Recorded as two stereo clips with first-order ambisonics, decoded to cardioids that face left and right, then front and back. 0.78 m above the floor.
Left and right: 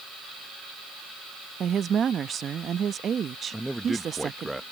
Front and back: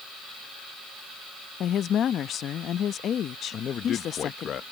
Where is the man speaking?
10° right.